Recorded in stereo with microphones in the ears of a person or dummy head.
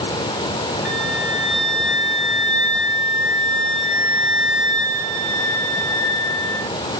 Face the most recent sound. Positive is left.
turn(degrees=-65)  # may be behind; listen again after turning